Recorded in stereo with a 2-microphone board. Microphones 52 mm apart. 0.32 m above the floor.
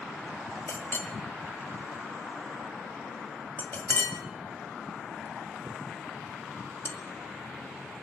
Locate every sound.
0.7 s a clink: 45° left (ahead or behind), 1.4 m